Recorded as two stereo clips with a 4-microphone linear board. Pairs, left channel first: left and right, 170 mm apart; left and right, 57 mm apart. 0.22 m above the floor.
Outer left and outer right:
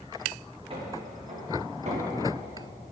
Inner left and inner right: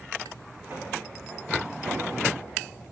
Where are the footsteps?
30° right (ahead or behind), 4 m; by 2.6 s 45° right (ahead or behind), 4.5 m.